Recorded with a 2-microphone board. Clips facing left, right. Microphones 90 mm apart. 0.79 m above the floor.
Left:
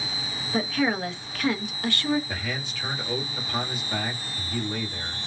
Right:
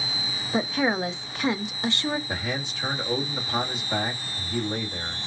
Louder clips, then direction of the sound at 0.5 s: Right 1 dB; 20° right (ahead or behind).